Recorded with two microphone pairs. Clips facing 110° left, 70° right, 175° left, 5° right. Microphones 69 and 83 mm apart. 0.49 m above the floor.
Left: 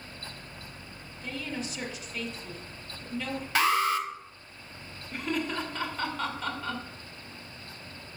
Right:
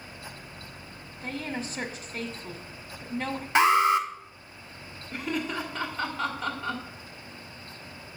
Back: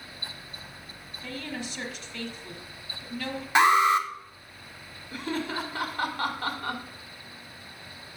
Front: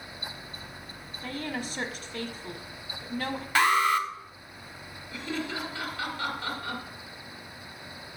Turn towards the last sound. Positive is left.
turn(degrees=-155)